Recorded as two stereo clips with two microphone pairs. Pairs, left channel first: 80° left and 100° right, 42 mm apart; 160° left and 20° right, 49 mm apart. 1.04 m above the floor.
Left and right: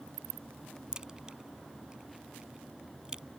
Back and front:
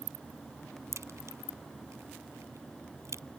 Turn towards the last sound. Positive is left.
turn(degrees=-25)